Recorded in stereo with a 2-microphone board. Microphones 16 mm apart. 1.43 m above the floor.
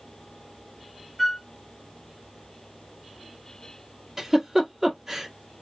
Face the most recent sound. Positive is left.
turn(degrees=-15)  # may be behind; listen again after turning